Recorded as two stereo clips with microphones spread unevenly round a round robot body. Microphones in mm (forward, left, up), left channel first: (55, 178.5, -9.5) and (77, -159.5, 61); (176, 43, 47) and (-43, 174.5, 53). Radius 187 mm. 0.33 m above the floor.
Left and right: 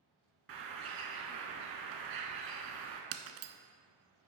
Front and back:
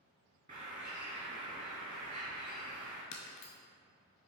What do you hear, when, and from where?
0.5 s a bird: 140° right, 0.6 m
3.1 s breaking glass: 70° right, 0.6 m